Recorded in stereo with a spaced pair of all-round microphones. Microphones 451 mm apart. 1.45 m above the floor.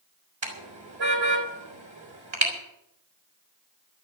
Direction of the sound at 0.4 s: 80° right.